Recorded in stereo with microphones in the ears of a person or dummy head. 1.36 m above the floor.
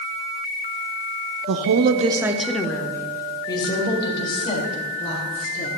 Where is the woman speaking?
75° right (ahead or behind), 0.6 m; by 5.7 s 35° left (ahead or behind), 4 m.